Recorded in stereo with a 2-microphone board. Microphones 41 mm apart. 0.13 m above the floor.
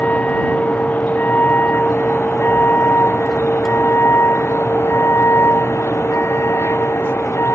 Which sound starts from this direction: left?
A vehicle, at 0.0 s.